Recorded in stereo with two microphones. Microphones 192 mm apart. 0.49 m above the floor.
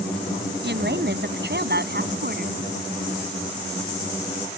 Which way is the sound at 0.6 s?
65° right (ahead or behind).